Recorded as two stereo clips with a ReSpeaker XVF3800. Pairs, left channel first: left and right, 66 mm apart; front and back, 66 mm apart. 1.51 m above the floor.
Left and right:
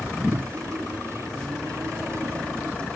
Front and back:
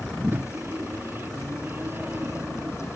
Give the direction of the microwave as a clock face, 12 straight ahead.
4 o'clock.